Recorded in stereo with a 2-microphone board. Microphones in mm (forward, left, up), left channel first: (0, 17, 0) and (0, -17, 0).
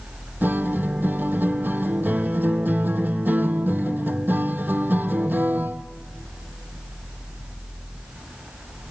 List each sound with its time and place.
0.4 s a guitar: 75° right (ahead or behind), 0.9 m